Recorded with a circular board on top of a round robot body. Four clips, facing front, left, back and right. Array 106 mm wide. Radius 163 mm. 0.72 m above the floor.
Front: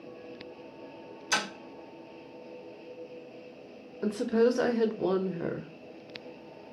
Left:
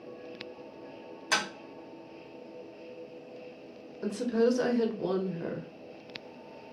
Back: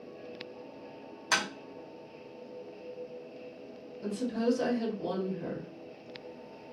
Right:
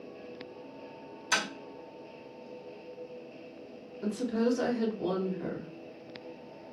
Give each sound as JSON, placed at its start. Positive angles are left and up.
{"t": 1.3, "sound": "tapping", "azimuth_deg": 145, "distance_m": 1.5}
{"t": 4.0, "sound": "a woman speaking", "azimuth_deg": 10, "distance_m": 0.7}